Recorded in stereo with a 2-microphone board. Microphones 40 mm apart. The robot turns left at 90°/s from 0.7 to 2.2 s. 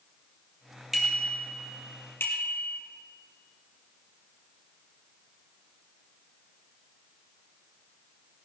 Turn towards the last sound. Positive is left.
turn(degrees=65)  # may be behind; listen again after turning